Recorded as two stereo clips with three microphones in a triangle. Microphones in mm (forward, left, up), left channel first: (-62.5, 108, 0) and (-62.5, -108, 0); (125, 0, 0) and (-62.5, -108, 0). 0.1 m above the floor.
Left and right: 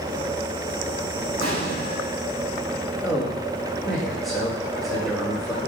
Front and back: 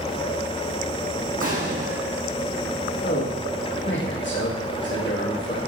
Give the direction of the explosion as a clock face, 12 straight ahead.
3 o'clock.